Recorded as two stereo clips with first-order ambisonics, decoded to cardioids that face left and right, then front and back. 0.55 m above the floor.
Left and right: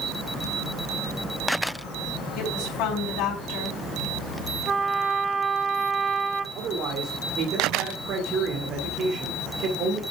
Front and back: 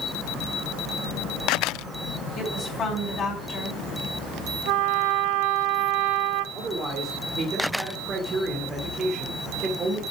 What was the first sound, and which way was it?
A woman speaking, 65° left.